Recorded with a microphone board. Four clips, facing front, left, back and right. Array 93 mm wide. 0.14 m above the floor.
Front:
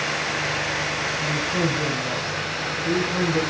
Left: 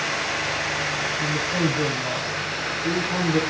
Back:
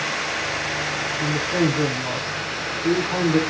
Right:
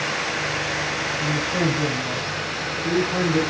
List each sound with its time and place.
1.2 s a woman speaking: 170° left, 6 m